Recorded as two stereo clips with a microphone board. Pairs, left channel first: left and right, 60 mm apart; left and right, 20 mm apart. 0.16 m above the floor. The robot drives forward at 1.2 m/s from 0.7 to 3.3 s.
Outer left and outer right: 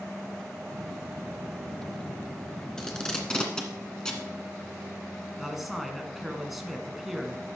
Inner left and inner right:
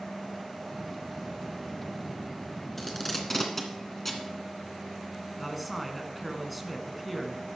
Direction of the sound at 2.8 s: 10° left (ahead or behind).